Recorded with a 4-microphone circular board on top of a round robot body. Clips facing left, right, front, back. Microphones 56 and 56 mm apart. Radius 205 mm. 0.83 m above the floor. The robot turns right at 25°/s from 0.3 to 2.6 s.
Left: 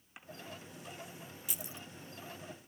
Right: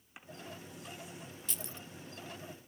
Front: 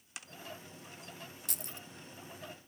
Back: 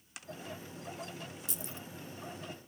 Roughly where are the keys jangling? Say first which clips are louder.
Even, back 3 dB; ahead.